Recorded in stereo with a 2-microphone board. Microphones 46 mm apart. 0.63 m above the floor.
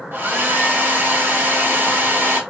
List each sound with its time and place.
0.1 s a hair dryer: 45° right (ahead or behind), 1.1 m